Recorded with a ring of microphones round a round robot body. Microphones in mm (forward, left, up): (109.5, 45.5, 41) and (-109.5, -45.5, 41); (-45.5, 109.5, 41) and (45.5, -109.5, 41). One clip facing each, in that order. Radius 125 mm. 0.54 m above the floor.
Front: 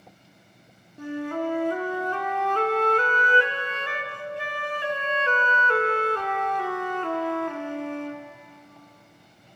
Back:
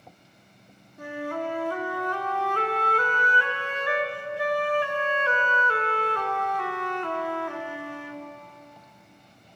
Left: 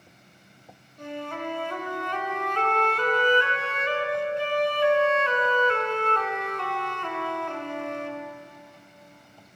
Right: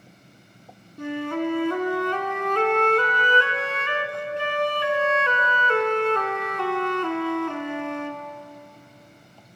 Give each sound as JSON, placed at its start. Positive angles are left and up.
{"t": 1.0, "sound": "a flute", "azimuth_deg": -40, "distance_m": 1.0}